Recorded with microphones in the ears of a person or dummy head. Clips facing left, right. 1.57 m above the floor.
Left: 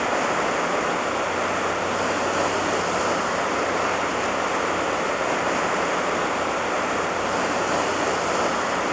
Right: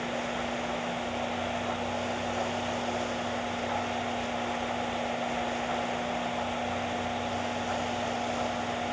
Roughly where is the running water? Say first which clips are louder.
Left 9 dB; left.